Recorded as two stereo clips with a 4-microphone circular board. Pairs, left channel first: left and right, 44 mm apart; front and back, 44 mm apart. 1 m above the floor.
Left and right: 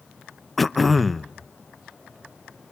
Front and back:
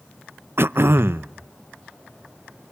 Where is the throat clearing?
Straight behind, 0.5 m.